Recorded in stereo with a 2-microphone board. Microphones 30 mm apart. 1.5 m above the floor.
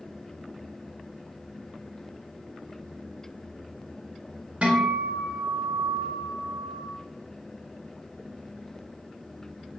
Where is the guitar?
45° right (ahead or behind), 1.0 m.